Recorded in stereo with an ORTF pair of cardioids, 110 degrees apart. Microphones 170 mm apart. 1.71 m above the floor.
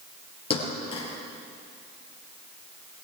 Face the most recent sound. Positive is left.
turn(degrees=35)